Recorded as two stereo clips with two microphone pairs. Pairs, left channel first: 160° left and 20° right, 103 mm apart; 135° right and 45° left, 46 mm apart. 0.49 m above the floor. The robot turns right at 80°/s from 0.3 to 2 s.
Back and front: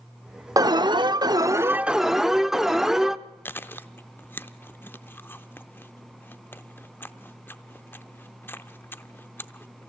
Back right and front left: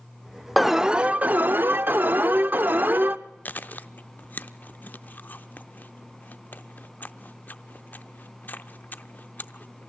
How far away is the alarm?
About 0.6 m.